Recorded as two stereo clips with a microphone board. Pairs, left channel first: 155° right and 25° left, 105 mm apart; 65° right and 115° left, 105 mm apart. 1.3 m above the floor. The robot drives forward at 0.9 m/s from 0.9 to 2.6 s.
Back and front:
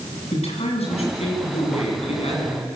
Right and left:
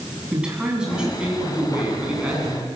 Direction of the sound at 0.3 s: 165° right.